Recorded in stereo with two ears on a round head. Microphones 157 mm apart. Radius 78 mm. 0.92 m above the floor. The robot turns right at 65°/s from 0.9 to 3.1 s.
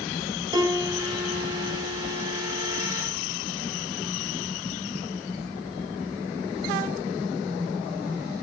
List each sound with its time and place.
0.5 s a piano: 155° right, 2.5 m; by 2.9 s 25° right, 2.5 m